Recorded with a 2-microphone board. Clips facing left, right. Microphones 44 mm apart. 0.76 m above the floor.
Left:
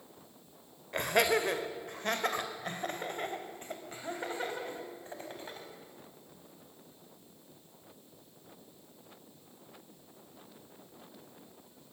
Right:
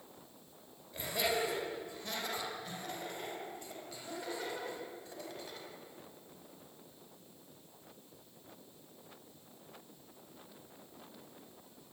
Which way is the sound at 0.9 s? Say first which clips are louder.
Left 7 dB; 70° left (ahead or behind).